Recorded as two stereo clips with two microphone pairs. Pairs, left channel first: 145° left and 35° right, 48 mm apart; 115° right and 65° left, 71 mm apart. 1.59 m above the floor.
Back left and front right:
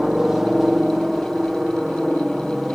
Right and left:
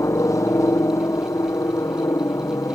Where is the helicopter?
115° right; by 2.8 s 120° right.